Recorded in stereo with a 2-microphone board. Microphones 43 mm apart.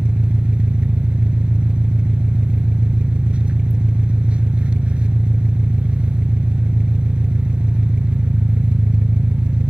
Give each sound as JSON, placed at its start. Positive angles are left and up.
{"t": 0.0, "sound": "an engine running", "side_deg": -25, "distance_m": 1.4}